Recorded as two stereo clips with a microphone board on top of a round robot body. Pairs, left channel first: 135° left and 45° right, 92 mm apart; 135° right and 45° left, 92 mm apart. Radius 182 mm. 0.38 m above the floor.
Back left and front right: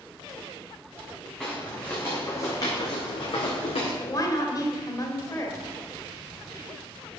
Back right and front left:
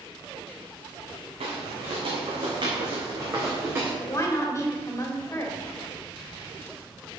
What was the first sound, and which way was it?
Footsteps, 55° left.